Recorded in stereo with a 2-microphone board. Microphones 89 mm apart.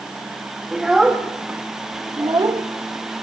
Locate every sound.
0.7 s a child speaking: 5° right (ahead or behind), 1.5 m; by 3.2 s 70° right (ahead or behind), 1.2 m